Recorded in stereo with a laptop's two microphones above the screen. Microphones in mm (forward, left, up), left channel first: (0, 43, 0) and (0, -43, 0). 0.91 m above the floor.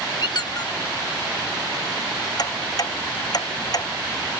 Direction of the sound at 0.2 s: 55° left (ahead or behind).